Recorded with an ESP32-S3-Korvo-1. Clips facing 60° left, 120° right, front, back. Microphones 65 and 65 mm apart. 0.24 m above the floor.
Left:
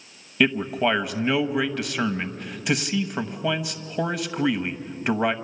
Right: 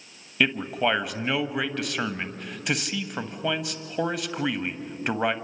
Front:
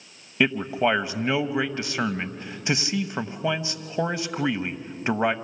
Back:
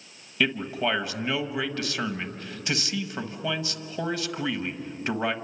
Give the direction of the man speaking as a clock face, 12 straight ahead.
1 o'clock.